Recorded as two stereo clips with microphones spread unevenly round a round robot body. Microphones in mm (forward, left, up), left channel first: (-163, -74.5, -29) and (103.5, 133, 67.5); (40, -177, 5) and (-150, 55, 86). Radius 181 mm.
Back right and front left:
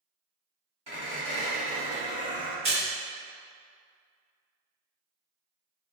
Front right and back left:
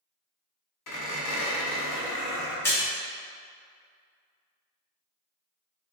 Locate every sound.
0.9 s a squeak: 45° right, 1.3 m
2.6 s a splash: 50° right, 1.1 m